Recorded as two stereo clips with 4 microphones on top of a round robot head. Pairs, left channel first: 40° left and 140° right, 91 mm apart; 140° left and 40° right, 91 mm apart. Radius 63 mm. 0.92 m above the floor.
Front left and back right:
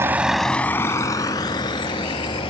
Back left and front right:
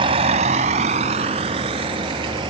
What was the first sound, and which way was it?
A vehicle, 75° right.